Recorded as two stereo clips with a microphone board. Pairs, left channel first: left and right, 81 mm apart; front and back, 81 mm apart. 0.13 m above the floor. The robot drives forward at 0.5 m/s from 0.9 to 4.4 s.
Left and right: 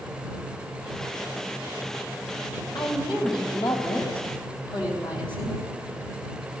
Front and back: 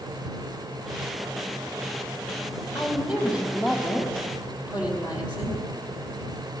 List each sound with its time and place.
2.8 s a woman speaking: 105° left, 5 m; by 5.6 s 110° left, 5 m